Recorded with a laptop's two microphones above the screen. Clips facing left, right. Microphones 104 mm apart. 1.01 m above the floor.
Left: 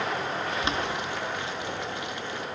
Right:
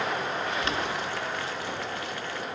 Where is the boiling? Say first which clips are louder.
Even; 20° left (ahead or behind), 0.6 m.